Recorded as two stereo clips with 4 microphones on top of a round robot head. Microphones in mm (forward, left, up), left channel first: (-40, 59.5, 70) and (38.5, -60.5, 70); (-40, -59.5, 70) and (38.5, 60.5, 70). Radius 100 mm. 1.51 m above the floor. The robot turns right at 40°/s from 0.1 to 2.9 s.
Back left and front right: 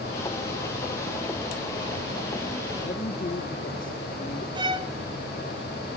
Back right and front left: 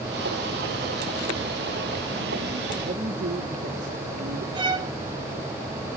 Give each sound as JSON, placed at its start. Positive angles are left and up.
{"t": 2.8, "sound": "a man speaking", "azimuth_deg": 85, "distance_m": 2.5}
{"t": 4.5, "sound": "a violin", "azimuth_deg": 0, "distance_m": 0.8}